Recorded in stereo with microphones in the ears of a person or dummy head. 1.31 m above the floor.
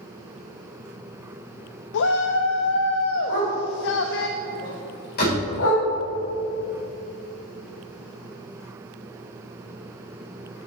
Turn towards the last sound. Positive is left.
turn(degrees=50)  # may be behind; listen again after turning